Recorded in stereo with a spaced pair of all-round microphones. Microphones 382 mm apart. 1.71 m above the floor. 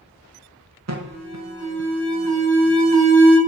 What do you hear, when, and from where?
0.9 s an alarm: 45° right (ahead or behind), 0.9 m